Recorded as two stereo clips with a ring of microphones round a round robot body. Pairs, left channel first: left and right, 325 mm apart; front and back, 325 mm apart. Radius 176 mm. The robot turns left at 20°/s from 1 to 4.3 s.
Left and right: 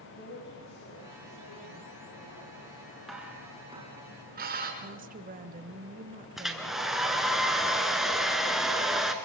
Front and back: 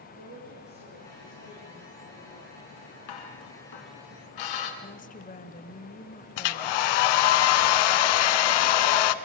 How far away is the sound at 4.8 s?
About 1.3 m.